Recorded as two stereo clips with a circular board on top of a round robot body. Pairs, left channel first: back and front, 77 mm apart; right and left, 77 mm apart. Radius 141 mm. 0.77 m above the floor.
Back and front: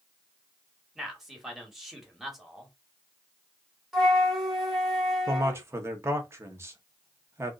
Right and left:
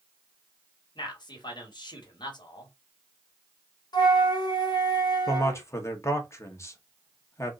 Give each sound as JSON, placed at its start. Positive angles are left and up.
{"t": 0.9, "sound": "a man speaking", "azimuth_deg": -85, "distance_m": 1.8}
{"t": 3.9, "sound": "a flute", "azimuth_deg": -85, "distance_m": 1.8}
{"t": 5.3, "sound": "a man speaking", "azimuth_deg": -50, "distance_m": 1.3}